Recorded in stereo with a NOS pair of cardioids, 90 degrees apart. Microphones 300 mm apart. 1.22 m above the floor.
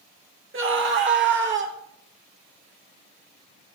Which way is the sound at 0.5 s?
40° right.